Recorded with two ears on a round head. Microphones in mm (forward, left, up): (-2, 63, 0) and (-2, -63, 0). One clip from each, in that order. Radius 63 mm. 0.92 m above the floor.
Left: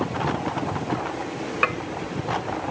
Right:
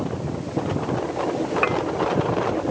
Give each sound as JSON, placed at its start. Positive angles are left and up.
{"t": 1.6, "sound": "dishes clattering", "side_deg": 30}